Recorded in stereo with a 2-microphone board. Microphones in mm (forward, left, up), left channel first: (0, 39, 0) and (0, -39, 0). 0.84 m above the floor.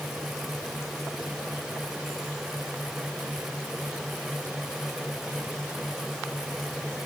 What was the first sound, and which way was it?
Only background noise.